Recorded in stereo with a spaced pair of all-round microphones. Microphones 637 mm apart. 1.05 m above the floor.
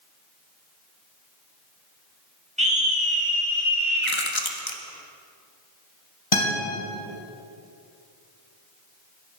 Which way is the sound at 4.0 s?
45° left (ahead or behind).